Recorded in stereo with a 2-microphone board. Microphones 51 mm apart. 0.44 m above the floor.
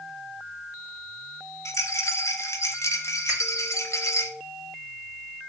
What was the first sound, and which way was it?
A rattle, 65° left (ahead or behind).